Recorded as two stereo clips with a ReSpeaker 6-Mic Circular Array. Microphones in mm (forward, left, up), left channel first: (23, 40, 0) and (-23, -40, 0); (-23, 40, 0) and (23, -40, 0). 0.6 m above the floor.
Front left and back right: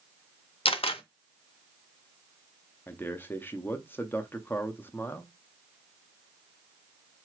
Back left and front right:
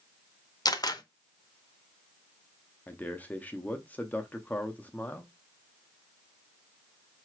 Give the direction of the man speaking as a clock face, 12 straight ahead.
9 o'clock.